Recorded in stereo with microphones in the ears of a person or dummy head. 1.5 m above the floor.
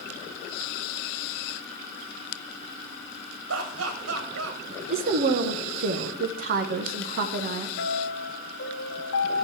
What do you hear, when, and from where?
3.5 s laughter: 75° right (ahead or behind), 1.6 m
4.9 s a woman speaking: 45° right (ahead or behind), 0.8 m
7.8 s a piano: 70° left (ahead or behind), 2 m